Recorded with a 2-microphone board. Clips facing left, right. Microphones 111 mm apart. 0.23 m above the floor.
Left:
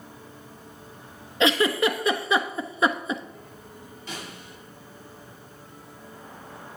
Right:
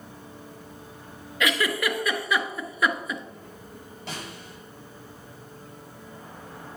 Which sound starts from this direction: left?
A giggle, at 1.4 s.